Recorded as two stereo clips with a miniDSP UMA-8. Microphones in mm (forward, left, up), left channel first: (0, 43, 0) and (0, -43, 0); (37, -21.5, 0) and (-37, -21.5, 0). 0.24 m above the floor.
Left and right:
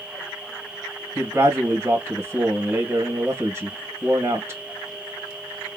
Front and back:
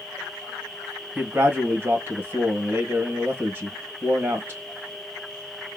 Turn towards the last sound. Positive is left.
turn(degrees=-135)